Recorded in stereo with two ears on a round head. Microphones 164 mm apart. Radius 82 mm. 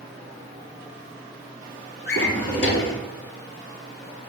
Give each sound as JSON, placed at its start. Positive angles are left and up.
{"t": 2.1, "sound": "a drawer", "side_deg": 65, "distance_m": 3.0}